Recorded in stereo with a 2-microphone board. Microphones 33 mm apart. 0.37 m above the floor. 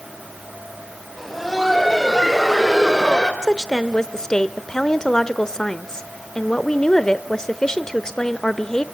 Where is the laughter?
Centre (ahead or behind), 2.5 m; by 3.3 s 25° left (ahead or behind), 1.4 m.